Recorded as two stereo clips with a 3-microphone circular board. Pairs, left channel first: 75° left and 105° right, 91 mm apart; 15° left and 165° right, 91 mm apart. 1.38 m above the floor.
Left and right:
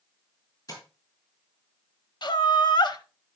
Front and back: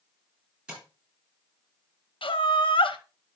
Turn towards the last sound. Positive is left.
turn(degrees=35)